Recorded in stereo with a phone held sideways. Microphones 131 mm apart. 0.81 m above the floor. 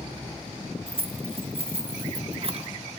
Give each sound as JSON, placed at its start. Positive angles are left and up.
{"t": 0.9, "sound": "keys jangling", "side_deg": -45, "distance_m": 0.6}